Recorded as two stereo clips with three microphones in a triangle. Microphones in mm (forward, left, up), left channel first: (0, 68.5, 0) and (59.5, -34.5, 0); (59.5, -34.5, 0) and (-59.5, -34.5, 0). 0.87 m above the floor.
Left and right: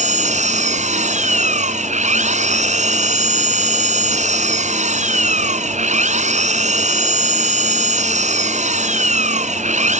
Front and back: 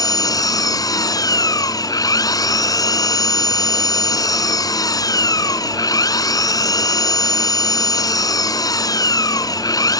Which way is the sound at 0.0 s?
60° right.